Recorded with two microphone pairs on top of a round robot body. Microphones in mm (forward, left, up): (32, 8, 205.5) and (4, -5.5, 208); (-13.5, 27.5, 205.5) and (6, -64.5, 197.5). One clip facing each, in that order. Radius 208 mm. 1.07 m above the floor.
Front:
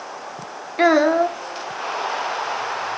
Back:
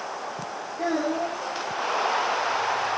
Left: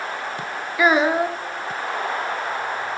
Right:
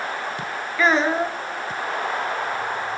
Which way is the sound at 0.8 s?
20° left.